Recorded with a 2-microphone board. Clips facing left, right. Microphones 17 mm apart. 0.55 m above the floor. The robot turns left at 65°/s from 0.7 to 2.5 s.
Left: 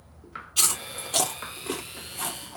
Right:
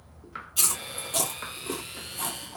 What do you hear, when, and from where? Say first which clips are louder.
0.6 s chewing: left 3 dB; 30° left (ahead or behind), 1.6 m; by 2.6 s 5° left (ahead or behind), 1.6 m